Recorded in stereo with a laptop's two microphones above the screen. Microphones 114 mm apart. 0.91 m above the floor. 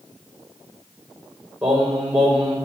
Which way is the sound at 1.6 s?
10° right (ahead or behind).